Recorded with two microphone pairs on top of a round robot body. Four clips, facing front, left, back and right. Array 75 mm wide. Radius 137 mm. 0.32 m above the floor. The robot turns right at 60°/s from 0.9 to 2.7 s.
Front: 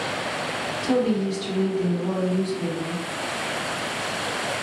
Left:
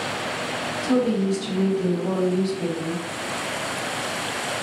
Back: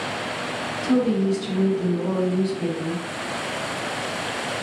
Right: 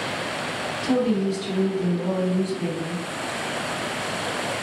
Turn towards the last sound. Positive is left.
turn(degrees=105)